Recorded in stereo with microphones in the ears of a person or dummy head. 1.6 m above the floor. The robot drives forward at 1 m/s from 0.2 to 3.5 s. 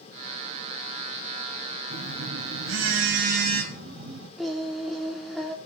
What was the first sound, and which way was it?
A phone buzzing, 65° right (ahead or behind).